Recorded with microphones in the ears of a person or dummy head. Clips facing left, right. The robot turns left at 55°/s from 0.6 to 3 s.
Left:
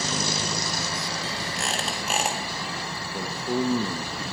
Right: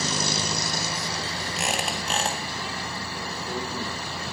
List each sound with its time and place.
1.6 s a squeak: 155° right, 1.5 m; by 2.4 s 160° left, 1.5 m
3.1 s a man speaking: 45° left (ahead or behind), 0.8 m